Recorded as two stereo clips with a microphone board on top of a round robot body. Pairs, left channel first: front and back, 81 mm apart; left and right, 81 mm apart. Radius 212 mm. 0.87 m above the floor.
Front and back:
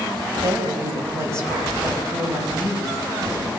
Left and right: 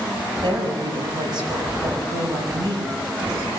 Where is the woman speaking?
125° right, 6 m.